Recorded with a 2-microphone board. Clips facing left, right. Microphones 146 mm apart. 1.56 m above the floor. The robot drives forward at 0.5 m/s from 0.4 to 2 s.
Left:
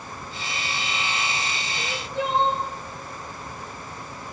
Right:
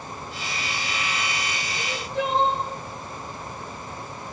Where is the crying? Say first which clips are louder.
Right 1 dB; 80° right, 6 m.